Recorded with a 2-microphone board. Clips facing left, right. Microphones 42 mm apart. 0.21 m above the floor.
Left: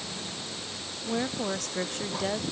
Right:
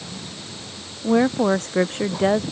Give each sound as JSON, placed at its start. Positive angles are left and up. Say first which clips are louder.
{"t": 1.0, "sound": "a woman speaking", "louder": "right 13 dB", "side_deg": -35}